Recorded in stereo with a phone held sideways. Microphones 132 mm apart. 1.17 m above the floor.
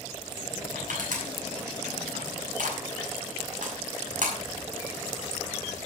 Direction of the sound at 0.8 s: 85° right.